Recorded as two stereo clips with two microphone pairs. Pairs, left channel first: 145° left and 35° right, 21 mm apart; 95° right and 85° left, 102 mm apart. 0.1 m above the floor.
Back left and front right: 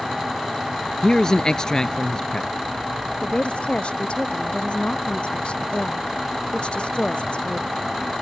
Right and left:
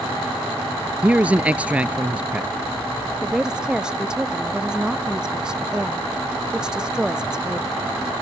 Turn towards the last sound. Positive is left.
turn(degrees=165)